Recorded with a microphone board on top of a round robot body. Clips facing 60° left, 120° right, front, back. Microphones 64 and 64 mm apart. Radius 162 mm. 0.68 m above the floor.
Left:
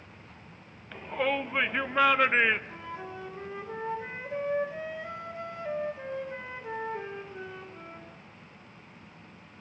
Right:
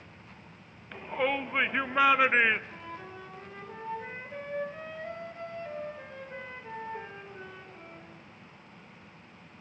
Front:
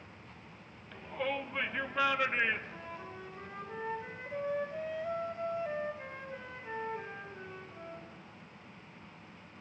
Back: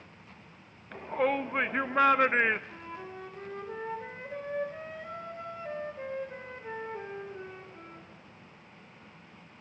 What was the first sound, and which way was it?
A shout, 160° left.